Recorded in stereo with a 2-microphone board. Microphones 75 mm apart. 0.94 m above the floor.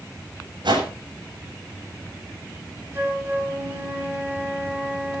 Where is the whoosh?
80° right, 7 m.